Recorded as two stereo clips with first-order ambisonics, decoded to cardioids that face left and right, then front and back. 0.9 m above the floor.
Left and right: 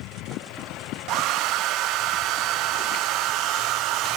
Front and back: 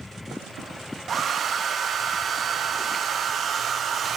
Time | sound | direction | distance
1.1 | a hair dryer | 120° right | 0.7 m